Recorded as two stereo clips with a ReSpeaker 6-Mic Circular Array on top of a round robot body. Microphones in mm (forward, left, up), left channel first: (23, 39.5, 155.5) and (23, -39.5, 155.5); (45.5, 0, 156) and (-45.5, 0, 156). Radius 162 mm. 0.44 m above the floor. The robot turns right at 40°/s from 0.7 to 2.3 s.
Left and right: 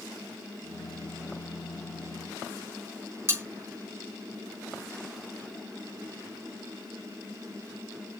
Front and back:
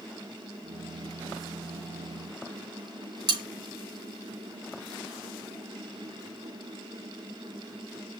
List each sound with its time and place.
3.3 s cutlery clinking: 150° right, 3.5 m